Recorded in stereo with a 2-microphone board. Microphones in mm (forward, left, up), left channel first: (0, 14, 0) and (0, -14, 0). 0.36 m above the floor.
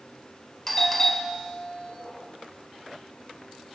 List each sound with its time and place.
0.7 s a doorbell: 10° left (ahead or behind), 1.9 m